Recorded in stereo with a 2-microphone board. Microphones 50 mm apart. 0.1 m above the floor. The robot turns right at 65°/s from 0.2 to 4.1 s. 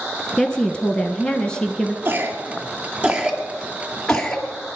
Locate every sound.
0.4 s a woman speaking: 20° left (ahead or behind), 1.5 m; by 1.9 s 10° left (ahead or behind), 1.5 m
2.0 s a cough: 35° right (ahead or behind), 2 m; by 4.8 s 10° left (ahead or behind), 2 m